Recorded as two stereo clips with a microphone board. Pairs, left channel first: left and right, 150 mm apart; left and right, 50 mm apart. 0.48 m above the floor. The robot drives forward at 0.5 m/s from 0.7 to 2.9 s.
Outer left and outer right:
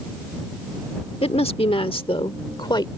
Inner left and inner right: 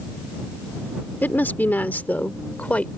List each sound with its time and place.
1.2 s a woman speaking: 40° left (ahead or behind); by 2.9 s 30° left (ahead or behind)